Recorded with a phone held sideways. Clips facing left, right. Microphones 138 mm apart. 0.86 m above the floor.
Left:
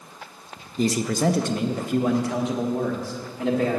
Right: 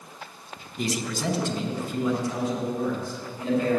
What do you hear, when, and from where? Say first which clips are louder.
0.8 s a man speaking: left 7 dB; 35° left (ahead or behind), 0.6 m; by 3.8 s 75° left (ahead or behind), 2.0 m